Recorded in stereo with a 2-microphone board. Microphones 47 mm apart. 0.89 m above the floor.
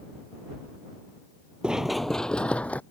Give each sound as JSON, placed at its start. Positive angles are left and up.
{"t": 1.6, "sound": "running footsteps", "side_deg": -20}